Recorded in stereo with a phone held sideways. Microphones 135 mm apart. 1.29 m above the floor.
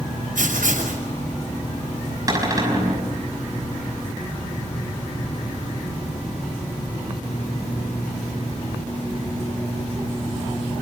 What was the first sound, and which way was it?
Writing, 90° right.